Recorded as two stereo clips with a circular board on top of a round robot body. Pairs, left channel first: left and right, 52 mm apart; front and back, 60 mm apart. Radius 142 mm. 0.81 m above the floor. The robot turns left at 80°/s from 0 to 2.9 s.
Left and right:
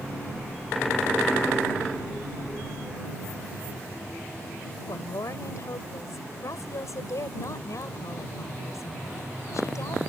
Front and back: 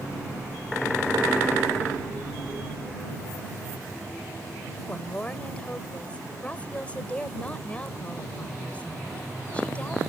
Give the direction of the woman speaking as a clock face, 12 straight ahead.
10 o'clock.